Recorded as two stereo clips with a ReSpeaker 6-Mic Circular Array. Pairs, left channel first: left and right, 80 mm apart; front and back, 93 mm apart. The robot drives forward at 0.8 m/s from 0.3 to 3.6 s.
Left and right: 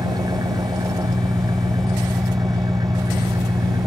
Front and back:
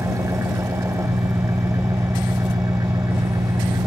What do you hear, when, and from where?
0.0 s an engine running: 125° right; by 3.9 s 130° right